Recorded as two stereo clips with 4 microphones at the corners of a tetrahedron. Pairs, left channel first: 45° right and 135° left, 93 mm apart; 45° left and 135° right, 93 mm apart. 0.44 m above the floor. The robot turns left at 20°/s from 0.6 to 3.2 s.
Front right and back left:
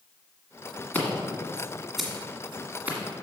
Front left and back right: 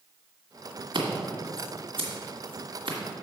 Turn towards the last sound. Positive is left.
turn(degrees=-160)